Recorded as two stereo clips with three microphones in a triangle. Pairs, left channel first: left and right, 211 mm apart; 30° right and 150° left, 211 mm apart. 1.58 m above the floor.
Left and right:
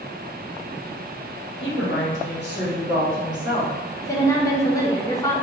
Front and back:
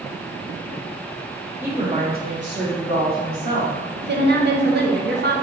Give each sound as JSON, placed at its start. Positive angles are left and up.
{"t": 1.6, "sound": "a woman speaking", "azimuth_deg": 70, "distance_m": 0.8}
{"t": 4.0, "sound": "a woman speaking", "azimuth_deg": 160, "distance_m": 0.7}